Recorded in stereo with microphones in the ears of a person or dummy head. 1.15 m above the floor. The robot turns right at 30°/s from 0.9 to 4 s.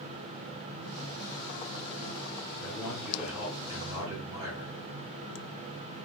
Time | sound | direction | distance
2.6 | a man speaking | 175° left | 1.5 m